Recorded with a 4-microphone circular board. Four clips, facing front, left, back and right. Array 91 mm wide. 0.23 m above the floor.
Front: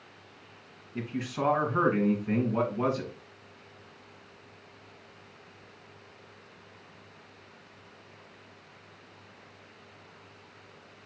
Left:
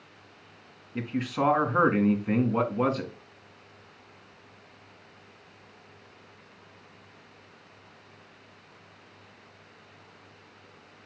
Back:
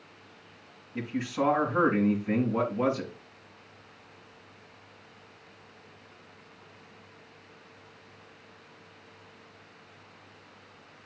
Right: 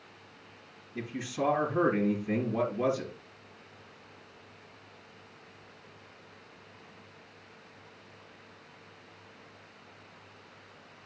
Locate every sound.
0.9 s a man speaking: 90° left, 2 m